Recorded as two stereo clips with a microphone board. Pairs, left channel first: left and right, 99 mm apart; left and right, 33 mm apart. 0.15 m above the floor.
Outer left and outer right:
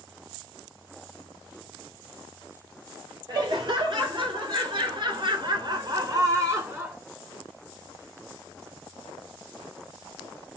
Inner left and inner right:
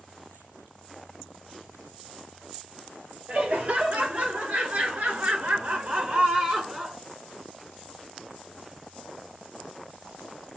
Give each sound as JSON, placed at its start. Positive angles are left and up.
{"t": 3.3, "sound": "laughter", "side_deg": -50, "distance_m": 3.0}